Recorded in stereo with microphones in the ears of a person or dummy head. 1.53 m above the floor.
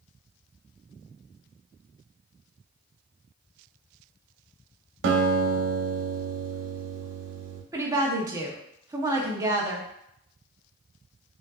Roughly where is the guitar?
Right.